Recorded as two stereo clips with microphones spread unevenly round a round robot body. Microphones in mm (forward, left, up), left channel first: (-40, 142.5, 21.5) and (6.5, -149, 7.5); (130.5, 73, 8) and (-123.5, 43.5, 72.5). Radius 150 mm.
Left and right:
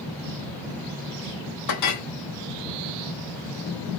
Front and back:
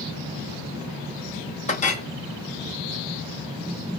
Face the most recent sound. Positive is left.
turn(degrees=70)